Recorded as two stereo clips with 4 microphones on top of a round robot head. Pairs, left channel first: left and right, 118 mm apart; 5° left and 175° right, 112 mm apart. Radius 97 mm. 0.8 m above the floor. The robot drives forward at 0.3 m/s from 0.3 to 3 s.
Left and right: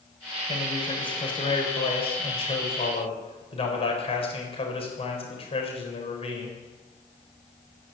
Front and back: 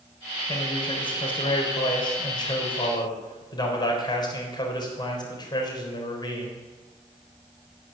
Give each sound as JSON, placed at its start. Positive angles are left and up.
{"t": 0.5, "sound": "a man speaking", "azimuth_deg": 45, "distance_m": 4.5}